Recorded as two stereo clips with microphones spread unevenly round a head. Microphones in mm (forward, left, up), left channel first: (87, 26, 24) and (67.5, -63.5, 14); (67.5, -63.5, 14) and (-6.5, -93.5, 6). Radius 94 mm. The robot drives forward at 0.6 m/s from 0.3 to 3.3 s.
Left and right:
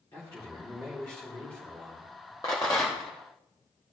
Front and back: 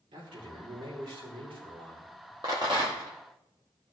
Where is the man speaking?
155° left, 3 m; by 2.3 s 160° left, 4 m.